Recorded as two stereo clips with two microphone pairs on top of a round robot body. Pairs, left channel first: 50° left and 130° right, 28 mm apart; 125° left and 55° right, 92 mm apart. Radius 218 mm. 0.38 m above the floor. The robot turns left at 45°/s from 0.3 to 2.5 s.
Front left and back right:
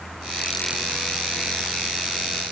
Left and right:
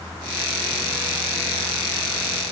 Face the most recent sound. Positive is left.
No sound to turn to.